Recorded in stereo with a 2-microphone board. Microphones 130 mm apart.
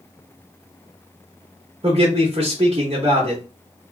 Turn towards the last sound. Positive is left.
turn(degrees=-45)  # may be behind; listen again after turning